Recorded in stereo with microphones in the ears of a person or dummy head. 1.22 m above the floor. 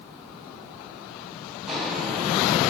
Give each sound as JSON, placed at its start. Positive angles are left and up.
{"t": 1.6, "sound": "footsteps", "side_deg": 0, "distance_m": 4.0}